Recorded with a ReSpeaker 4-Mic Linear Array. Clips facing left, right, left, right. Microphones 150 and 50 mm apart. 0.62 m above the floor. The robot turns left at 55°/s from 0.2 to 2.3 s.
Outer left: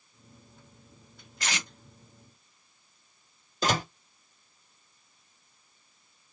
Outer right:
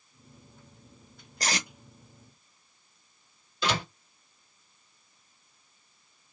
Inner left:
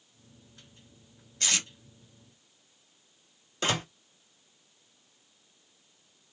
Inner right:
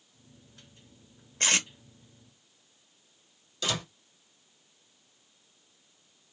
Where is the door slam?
40° left (ahead or behind), 0.7 m.